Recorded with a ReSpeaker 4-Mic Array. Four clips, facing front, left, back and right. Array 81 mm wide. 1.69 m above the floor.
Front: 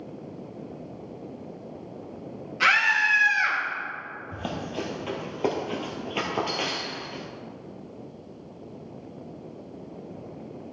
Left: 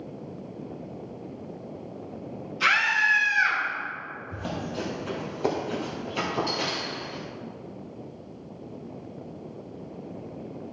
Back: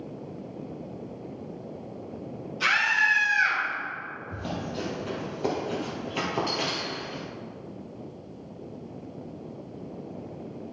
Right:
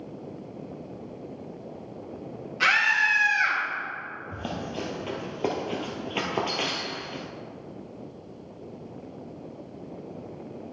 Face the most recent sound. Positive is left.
turn(degrees=-90)